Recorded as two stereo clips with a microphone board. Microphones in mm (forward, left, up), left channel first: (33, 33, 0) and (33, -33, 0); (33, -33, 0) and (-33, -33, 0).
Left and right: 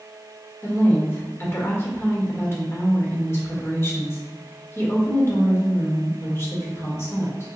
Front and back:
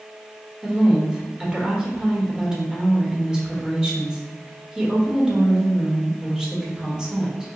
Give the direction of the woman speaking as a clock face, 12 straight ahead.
8 o'clock.